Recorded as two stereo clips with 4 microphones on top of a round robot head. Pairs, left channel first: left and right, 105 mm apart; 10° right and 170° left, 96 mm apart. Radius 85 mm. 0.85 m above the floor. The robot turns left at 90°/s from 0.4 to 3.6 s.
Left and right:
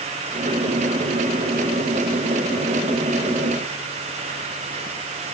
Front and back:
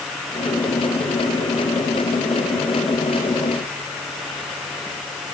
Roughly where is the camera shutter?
No camera shutter in this recording.